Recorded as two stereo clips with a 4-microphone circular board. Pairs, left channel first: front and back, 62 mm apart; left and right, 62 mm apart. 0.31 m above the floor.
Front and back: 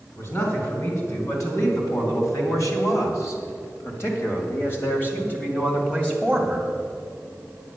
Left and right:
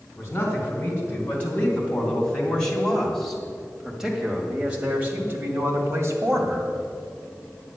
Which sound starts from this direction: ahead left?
A man speaking, at 0.2 s.